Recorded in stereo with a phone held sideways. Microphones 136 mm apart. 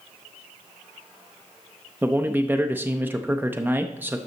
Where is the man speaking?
15° right (ahead or behind), 0.6 m.